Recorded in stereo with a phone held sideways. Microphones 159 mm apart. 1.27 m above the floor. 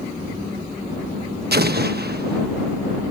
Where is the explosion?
85° right.